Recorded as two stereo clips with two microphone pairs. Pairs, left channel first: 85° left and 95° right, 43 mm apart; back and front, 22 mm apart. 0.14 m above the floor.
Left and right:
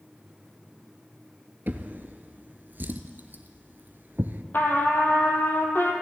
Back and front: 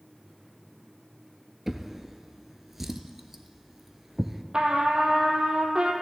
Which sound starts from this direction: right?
A drawer, at 1.7 s.